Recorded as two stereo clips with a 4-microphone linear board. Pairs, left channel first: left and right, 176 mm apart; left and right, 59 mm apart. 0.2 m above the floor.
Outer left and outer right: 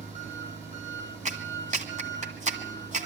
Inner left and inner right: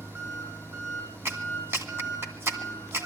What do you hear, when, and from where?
0.0 s an engine running: 40° right (ahead or behind), 6.5 m
1.2 s a clap: 40° right (ahead or behind), 1.8 m